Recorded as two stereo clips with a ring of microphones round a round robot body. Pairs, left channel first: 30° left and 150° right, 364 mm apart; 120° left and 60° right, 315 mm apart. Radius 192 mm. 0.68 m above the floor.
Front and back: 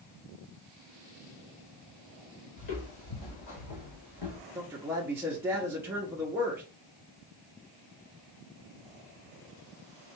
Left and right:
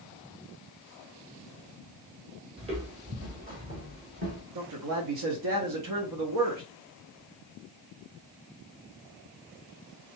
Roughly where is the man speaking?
Ahead right.